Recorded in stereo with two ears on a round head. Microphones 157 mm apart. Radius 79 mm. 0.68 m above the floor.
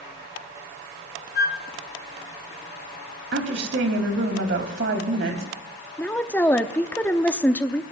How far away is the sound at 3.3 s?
About 3.5 m.